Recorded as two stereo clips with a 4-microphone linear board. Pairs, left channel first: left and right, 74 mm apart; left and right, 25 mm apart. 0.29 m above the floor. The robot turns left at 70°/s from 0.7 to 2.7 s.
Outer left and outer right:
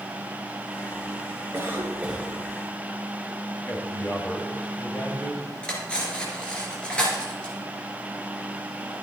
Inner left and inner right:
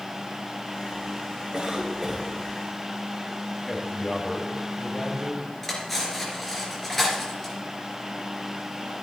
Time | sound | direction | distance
1.5 | a cough | 115° right | 1.2 m
3.7 | a man speaking | 25° left (ahead or behind) | 1.6 m
5.6 | cutlery clinking | 15° left (ahead or behind) | 3 m